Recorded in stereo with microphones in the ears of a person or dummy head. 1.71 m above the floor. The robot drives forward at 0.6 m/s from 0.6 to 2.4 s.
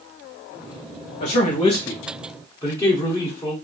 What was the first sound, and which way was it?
A man speaking, 30° left (ahead or behind).